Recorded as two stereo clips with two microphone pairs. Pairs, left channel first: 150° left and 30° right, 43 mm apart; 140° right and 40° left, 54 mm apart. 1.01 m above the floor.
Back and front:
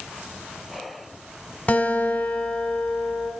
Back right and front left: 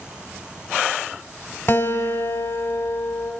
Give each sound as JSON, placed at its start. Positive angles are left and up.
{"t": 1.7, "sound": "a guitar", "azimuth_deg": -160, "distance_m": 1.2}